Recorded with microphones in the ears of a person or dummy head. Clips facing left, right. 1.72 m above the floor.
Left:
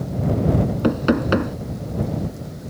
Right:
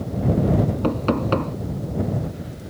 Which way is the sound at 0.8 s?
15° left (ahead or behind).